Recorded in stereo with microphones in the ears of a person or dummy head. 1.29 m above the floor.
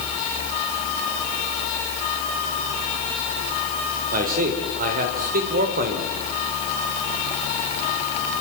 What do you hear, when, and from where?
4.1 s a man speaking: 50° right (ahead or behind), 4.5 m